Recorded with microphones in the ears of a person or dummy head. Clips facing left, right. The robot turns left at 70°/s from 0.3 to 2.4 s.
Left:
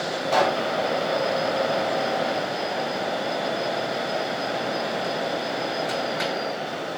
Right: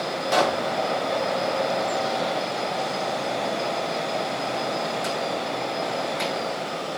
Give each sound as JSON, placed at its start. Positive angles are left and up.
{"t": 0.3, "sound": "a pop", "side_deg": -35, "distance_m": 1.4}